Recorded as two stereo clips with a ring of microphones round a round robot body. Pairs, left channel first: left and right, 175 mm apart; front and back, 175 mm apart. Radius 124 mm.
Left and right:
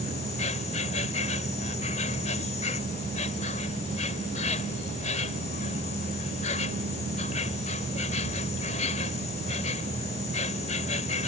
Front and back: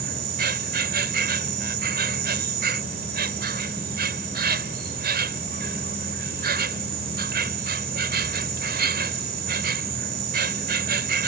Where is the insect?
155° left.